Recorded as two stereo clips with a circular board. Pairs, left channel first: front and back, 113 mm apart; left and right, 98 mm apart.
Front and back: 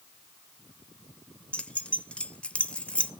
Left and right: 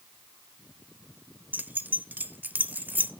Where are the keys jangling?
60° right, 0.6 m.